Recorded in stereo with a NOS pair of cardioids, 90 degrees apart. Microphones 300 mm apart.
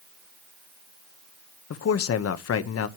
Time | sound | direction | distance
1.7 | a man speaking | 55° left | 1.2 m